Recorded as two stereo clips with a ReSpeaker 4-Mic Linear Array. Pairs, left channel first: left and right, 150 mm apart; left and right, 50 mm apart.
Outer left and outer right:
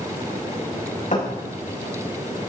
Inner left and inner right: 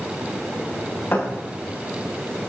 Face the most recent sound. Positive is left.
turn(degrees=55)  # may be behind; listen again after turning